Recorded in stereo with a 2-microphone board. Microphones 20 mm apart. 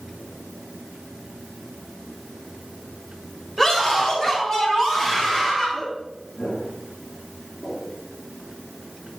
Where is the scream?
30° left (ahead or behind), 3.5 m.